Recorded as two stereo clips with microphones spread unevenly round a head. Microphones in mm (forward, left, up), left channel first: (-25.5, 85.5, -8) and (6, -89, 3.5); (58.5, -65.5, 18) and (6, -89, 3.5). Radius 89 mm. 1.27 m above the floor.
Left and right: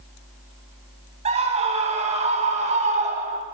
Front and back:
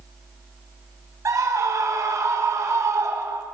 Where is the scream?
135° right, 8 m; by 3.4 s 130° right, 6.5 m.